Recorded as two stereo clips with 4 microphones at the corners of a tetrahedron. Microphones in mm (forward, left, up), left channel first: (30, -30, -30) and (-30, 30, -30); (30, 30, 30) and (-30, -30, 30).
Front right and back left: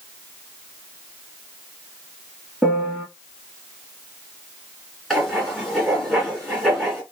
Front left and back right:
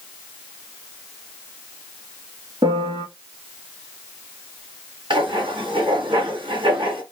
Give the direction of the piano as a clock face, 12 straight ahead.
5 o'clock.